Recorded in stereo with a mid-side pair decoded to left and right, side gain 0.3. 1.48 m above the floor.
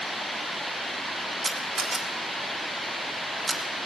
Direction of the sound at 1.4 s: 45° right.